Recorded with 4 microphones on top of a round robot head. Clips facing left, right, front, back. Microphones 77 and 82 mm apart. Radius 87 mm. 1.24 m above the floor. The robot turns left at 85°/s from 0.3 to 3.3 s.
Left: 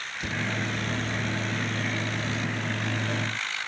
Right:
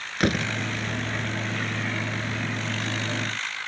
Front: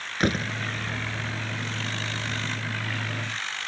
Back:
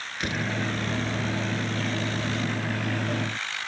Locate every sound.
0.2 s a door slam: 55° right; by 0.5 s 75° right